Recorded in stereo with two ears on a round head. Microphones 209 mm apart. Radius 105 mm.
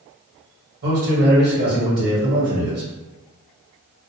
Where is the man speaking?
45° right (ahead or behind), 1.5 m.